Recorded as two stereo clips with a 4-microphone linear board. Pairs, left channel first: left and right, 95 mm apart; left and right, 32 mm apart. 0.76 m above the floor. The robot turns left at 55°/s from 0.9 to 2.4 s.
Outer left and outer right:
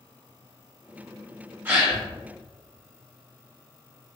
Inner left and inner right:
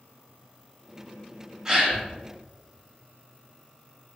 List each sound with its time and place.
1.6 s a gasp: 20° right (ahead or behind), 1.4 m; by 2.0 s centre (ahead or behind), 1.4 m